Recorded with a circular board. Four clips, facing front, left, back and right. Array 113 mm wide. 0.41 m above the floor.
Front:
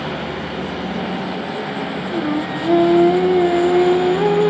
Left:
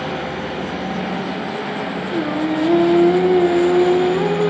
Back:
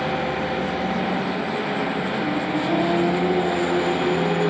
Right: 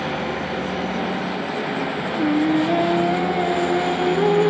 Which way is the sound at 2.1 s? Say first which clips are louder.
Right 2 dB, front 2 dB; 45° left.